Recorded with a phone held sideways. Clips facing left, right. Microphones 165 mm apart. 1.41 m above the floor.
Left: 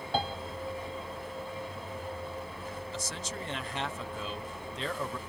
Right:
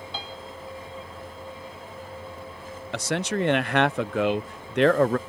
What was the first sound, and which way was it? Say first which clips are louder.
A piano: left 9 dB; 55° left (ahead or behind).